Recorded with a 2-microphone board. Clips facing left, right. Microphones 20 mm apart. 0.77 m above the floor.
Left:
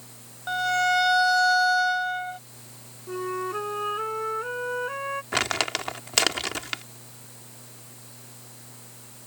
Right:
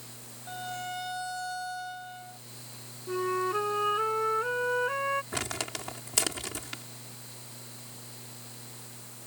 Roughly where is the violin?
Left.